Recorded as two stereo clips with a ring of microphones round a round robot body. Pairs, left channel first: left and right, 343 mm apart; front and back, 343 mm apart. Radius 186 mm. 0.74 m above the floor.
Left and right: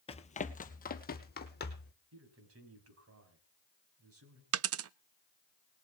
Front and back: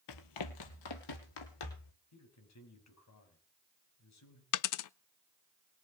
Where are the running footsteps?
20° left, 1.1 m; by 1.9 s 30° left, 3 m.